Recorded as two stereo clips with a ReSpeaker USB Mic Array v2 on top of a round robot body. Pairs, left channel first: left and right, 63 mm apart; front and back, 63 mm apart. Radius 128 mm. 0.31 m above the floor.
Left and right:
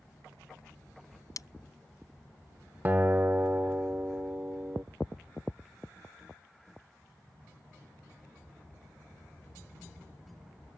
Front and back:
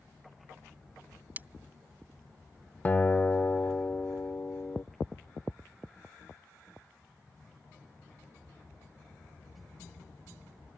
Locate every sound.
1.4 s breaking glass: 120° left
2.9 s a guitar: 50° right